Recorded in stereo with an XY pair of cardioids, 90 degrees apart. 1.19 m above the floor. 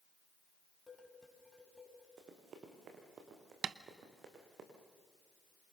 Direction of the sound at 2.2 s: 65° right.